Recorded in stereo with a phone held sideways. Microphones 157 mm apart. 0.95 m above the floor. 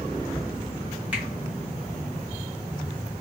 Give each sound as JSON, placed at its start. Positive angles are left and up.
{"t": 1.1, "sound": "a finger snap", "side_deg": -5, "distance_m": 1.2}